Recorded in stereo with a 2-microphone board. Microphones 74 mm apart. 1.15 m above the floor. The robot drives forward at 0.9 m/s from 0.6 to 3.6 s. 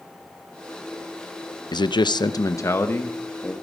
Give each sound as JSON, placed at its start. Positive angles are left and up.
{"t": 1.7, "sound": "a man speaking", "side_deg": 70, "distance_m": 0.6}